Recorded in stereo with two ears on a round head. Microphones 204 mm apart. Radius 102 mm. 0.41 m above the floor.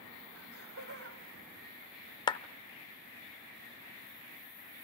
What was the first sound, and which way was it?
Laughter, 65° right (ahead or behind).